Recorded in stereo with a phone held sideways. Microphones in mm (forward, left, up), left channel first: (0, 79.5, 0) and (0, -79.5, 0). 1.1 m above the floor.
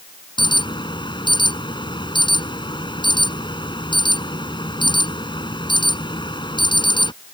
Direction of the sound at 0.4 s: 30° left (ahead or behind).